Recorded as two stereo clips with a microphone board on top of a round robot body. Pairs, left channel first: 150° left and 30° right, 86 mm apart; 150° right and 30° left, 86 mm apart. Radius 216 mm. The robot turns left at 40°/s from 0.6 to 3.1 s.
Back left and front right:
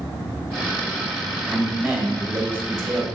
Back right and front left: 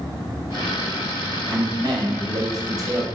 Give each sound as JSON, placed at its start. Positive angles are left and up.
{"t": 1.5, "sound": "a man speaking", "azimuth_deg": 65, "distance_m": 1.5}